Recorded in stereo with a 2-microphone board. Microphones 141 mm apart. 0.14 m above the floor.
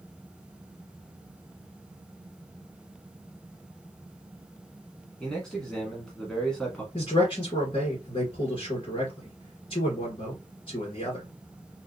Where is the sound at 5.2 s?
5° left (ahead or behind), 1.1 m.